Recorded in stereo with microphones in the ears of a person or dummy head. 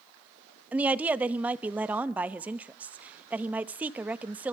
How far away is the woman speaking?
About 0.9 m.